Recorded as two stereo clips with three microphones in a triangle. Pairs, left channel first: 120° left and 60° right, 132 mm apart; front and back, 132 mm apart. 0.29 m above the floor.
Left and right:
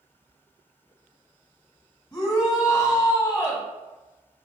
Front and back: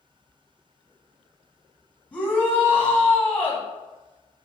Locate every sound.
2.1 s a shout: 75° left, 1.3 m